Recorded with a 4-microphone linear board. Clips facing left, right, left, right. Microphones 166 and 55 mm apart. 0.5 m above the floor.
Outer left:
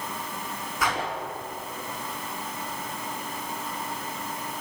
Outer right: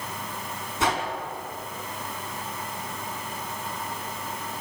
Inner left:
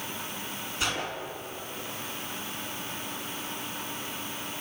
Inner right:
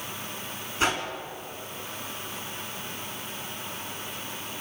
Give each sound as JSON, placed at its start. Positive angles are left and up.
{"t": 0.8, "sound": "a whoosh", "side_deg": -25, "distance_m": 4.5}